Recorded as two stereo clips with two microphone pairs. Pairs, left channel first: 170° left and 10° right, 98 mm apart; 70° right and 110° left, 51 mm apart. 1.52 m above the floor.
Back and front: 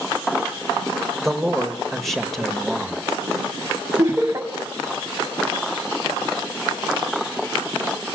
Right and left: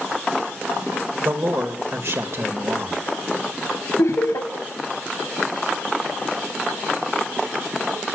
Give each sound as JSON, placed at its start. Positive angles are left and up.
{"t": 1.2, "sound": "a man speaking", "azimuth_deg": 85, "distance_m": 2.5}
{"t": 4.0, "sound": "laughter", "azimuth_deg": -75, "distance_m": 2.5}